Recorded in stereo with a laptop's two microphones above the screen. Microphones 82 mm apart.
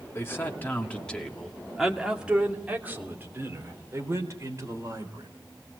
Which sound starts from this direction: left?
A man speaking, at 0.1 s.